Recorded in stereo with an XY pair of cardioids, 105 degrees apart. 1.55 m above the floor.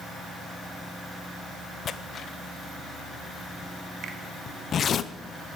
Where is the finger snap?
60° right, 1.9 m.